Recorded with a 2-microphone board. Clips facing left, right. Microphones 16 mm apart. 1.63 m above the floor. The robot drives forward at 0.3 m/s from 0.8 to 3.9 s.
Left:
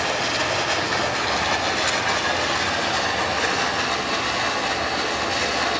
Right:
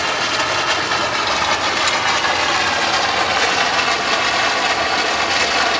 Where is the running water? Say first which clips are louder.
Right 4 dB; 35° right (ahead or behind), 3.5 m; by 5.8 s 45° right (ahead or behind), 2.5 m.